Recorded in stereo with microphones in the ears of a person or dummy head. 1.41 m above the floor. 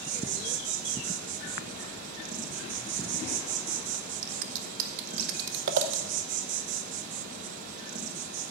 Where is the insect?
40° right (ahead or behind), 1.5 m.